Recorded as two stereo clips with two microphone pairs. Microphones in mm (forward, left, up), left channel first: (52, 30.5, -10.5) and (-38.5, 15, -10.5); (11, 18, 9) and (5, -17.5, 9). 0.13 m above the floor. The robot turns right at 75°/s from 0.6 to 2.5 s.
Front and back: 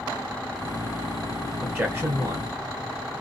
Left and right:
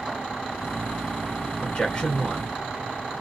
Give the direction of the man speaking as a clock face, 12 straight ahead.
8 o'clock.